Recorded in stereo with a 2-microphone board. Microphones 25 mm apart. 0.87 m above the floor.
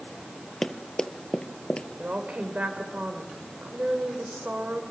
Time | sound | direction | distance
0.6 | running footsteps | 15° left (ahead or behind) | 1.3 m
2.0 | a woman speaking | 70° right (ahead or behind) | 4 m